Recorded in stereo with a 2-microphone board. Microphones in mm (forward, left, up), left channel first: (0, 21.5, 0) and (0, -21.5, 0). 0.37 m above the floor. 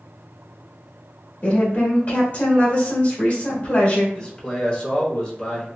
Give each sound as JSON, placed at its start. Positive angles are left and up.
{"t": 1.4, "sound": "a woman speaking", "side_deg": 35, "distance_m": 1.2}
{"t": 4.2, "sound": "a man speaking", "side_deg": 20, "distance_m": 0.8}